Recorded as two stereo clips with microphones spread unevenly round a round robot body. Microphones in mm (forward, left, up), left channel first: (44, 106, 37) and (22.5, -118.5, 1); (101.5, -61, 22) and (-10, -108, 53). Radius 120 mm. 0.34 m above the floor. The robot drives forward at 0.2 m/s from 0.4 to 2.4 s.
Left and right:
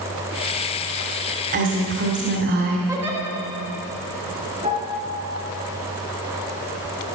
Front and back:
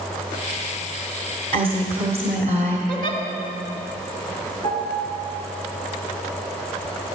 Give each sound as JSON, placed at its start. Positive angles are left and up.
{"t": 1.5, "sound": "a woman speaking", "azimuth_deg": -115, "distance_m": 1.5}
{"t": 2.9, "sound": "a giggle", "azimuth_deg": -175, "distance_m": 2.0}
{"t": 4.6, "sound": "a piano", "azimuth_deg": -160, "distance_m": 3.0}